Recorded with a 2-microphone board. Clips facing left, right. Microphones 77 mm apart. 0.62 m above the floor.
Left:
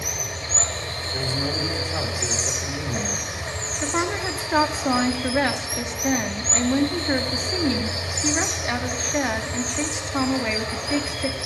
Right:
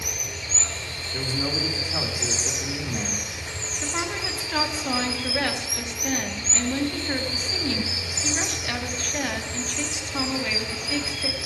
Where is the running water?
50° left (ahead or behind), 1.0 m.